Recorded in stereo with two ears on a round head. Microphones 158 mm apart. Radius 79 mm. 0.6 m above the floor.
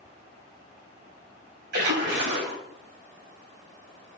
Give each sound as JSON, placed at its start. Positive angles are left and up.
{"t": 1.7, "sound": "a splash", "side_deg": -65, "distance_m": 4.0}